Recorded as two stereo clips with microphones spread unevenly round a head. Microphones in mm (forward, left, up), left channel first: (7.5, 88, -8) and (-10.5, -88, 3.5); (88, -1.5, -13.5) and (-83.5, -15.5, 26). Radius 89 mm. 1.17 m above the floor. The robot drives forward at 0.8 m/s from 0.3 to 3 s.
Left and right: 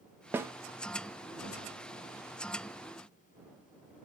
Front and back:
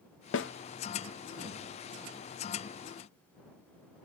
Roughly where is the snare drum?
Ahead.